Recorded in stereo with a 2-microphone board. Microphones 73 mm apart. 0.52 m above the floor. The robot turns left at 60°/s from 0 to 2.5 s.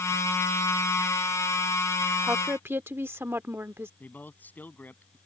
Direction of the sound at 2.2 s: 20° right (ahead or behind).